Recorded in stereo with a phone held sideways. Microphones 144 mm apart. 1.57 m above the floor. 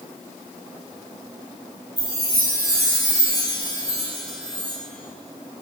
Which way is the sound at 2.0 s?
30° left (ahead or behind).